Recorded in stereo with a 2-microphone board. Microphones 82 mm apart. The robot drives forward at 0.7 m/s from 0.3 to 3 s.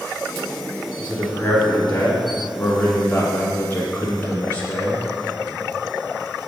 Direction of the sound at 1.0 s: 15° left (ahead or behind).